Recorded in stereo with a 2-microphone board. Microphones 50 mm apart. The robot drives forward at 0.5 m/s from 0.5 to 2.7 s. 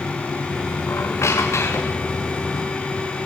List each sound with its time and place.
0.9 s a squeak: 60° left (ahead or behind), 4.5 m; by 2.1 s 70° left (ahead or behind), 4 m